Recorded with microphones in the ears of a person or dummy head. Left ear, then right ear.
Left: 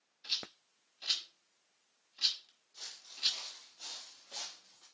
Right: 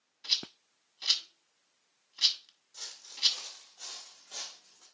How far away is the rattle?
About 1.4 m.